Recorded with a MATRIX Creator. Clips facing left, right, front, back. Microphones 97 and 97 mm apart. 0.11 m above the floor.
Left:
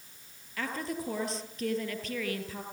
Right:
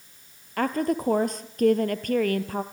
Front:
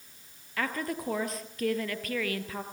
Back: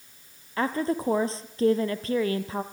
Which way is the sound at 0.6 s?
120° right.